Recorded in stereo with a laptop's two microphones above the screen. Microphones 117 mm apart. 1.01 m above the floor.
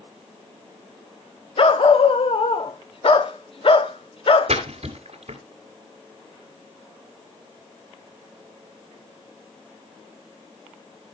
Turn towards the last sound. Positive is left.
turn(degrees=-60)  # may be behind; listen again after turning